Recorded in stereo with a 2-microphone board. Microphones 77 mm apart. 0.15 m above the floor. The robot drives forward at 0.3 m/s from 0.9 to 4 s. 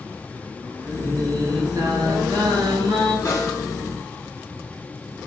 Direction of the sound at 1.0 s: 60° right (ahead or behind).